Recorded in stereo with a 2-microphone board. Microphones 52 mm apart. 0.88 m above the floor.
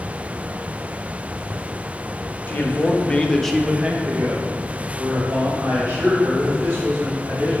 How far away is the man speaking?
About 1.0 m.